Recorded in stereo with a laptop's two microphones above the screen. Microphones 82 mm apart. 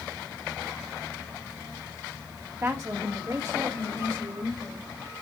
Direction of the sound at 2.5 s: 35° right (ahead or behind).